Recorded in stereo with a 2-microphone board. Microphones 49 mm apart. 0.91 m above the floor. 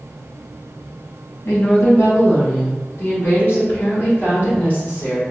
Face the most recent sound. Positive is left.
turn(degrees=35)  # may be behind; listen again after turning